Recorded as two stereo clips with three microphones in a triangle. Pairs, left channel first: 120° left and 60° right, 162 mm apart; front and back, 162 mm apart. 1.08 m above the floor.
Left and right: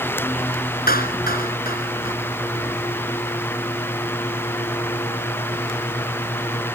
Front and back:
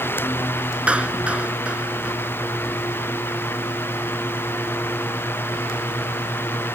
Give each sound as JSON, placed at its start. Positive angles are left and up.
{"t": 0.9, "sound": "a clap", "azimuth_deg": 95}